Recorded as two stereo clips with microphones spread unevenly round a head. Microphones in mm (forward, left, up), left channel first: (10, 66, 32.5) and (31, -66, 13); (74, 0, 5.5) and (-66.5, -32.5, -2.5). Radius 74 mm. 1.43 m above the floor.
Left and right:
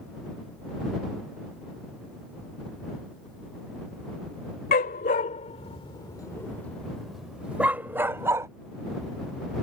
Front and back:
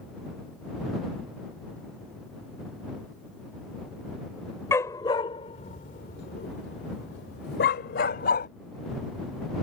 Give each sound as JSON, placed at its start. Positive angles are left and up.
{"t": 4.7, "sound": "a dog barking", "azimuth_deg": 85}